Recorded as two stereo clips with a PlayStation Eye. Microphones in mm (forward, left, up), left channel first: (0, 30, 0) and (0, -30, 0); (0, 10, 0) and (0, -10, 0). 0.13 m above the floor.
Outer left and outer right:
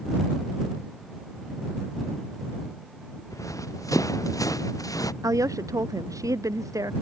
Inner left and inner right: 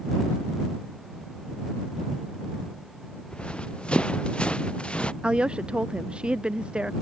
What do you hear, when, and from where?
3.3 s running footsteps: 70° left (ahead or behind); by 5.1 s 85° left
5.2 s a woman speaking: 70° right (ahead or behind)